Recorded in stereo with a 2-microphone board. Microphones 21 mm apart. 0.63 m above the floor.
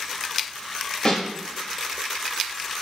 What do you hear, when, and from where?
1.1 s a snare drum: 45° left (ahead or behind), 1.2 m